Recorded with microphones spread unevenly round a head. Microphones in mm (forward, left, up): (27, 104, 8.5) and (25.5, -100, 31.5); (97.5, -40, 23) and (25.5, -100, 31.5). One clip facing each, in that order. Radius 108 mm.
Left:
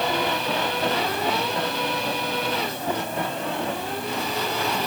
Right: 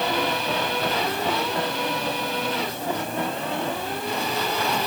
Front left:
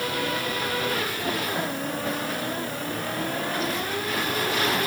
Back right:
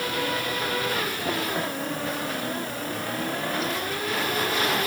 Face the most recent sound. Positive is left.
No sound to turn to.